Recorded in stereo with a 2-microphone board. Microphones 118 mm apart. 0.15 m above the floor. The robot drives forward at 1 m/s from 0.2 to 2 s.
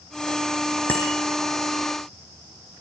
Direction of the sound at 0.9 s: 15° left (ahead or behind).